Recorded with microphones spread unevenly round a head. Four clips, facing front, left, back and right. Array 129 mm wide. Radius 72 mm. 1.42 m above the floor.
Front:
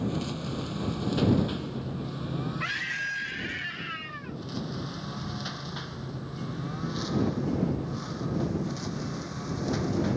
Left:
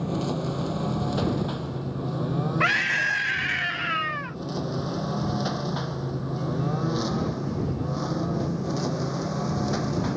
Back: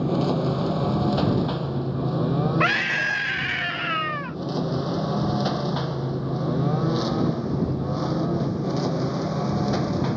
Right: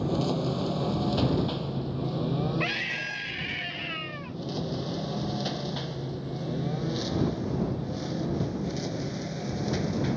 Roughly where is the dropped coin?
No dropped coin in this recording.